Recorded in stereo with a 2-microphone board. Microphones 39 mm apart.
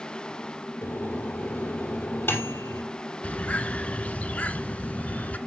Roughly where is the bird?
Left.